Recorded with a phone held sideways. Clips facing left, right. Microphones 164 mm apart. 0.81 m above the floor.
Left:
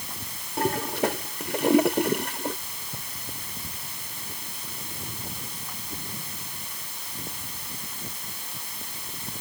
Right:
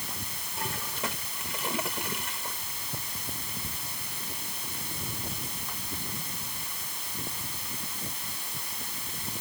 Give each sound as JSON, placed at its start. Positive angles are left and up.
{"t": 0.6, "sound": "a toilet flushing", "side_deg": 65}